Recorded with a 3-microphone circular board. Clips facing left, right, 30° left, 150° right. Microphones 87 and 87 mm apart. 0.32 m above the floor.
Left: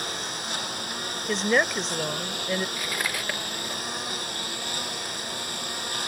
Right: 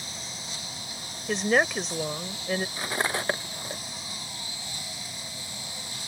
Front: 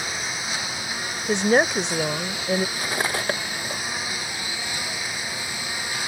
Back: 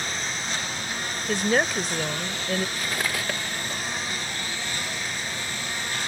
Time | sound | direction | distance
0.0 | a lawn mower | 110° left | ?
1.3 | a woman speaking | straight ahead | ?
2.8 | cutlery clinking | 30° right | ?